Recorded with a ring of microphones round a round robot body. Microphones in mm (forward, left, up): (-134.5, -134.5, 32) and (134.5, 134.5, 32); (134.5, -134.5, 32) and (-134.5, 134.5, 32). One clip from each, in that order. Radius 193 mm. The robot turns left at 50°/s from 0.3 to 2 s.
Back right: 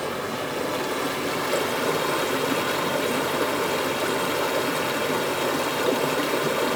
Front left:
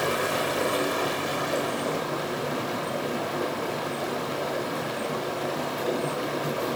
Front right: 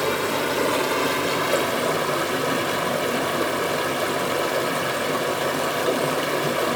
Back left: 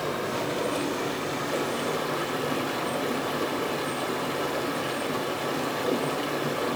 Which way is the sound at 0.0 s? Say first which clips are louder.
Front left 3 dB, front right 6 dB; 15° right.